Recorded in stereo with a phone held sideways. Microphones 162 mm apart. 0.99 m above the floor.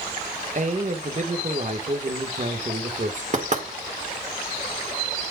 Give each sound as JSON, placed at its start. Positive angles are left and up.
{"t": 0.6, "sound": "a man speaking", "side_deg": -50, "distance_m": 1.3}
{"t": 3.3, "sound": "knocking", "side_deg": -50, "distance_m": 2.0}